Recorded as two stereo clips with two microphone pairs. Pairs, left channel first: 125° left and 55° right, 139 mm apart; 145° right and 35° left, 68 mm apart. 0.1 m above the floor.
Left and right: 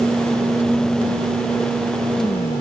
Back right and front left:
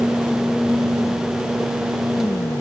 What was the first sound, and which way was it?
Only background noise.